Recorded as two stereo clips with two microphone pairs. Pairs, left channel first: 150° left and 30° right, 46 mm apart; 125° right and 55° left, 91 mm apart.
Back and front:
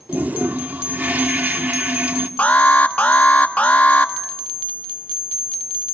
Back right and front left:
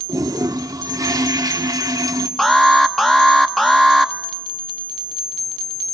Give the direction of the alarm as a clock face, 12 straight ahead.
7 o'clock.